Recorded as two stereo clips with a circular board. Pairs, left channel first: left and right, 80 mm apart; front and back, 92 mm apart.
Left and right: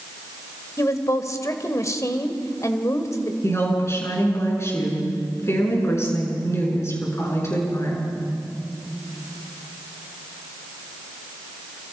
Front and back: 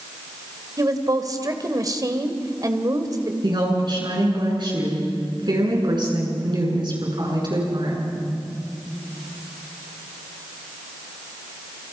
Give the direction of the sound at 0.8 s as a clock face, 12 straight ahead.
7 o'clock.